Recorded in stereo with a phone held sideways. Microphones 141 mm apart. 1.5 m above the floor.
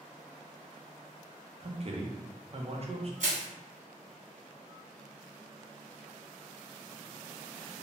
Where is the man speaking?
45° right (ahead or behind), 0.6 m.